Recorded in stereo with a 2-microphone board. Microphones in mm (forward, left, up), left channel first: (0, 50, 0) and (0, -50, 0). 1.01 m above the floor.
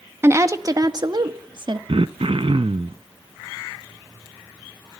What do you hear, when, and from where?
0.2 s a woman speaking: 25° right (ahead or behind), 1.4 m; by 1.8 s 60° right (ahead or behind), 2.0 m
1.9 s throat clearing: 70° right (ahead or behind), 0.6 m